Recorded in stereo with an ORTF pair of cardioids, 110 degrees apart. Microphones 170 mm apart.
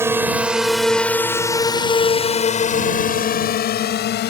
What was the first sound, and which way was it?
A drone, 15° right.